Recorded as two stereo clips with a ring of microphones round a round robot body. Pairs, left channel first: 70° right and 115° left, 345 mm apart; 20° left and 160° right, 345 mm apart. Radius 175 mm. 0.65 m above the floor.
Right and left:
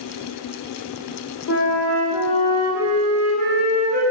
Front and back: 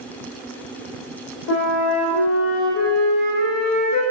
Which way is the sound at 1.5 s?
25° right.